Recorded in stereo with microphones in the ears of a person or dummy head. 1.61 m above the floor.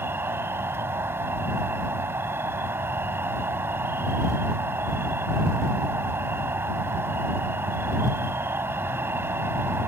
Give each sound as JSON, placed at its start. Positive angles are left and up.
{"t": 0.0, "sound": "an insect", "side_deg": -15}